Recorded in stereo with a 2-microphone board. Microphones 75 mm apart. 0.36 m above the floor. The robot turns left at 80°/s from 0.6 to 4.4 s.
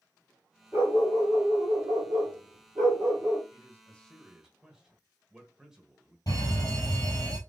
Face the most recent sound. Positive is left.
turn(degrees=55)  # may be behind; listen again after turning